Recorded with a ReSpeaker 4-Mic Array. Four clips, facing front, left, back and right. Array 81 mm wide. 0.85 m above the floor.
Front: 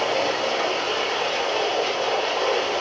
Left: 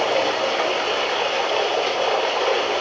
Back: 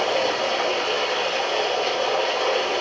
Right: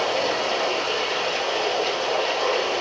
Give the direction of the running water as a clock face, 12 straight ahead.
9 o'clock.